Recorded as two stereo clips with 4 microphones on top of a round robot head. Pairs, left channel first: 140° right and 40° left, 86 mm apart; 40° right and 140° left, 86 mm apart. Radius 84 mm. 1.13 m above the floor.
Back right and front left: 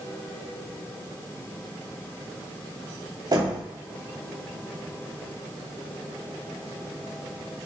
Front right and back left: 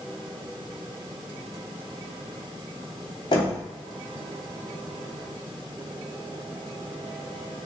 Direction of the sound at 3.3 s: Straight ahead.